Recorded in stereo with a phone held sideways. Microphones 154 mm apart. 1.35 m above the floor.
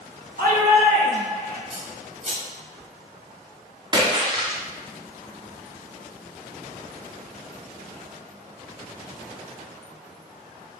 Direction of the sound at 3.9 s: 30° right (ahead or behind).